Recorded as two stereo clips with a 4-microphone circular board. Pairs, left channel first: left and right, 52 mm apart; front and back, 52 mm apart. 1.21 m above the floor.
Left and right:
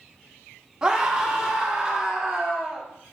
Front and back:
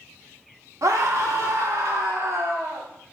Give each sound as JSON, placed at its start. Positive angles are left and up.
{"t": 0.8, "sound": "a scream", "azimuth_deg": -165, "distance_m": 1.1}